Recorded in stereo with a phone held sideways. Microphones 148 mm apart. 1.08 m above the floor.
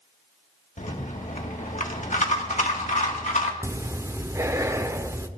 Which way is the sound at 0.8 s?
60° left (ahead or behind).